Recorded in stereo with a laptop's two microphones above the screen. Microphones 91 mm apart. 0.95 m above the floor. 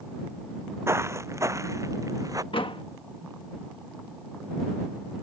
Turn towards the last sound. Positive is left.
turn(degrees=70)  # may be behind; listen again after turning